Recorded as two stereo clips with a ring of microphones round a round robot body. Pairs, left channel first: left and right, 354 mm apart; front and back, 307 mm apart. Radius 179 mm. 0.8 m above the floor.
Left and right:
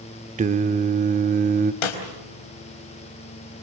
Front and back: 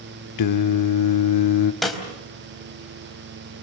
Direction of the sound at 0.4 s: 20° right.